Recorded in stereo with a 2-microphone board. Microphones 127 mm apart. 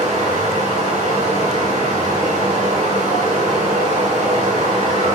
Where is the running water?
85° right, 1.8 m.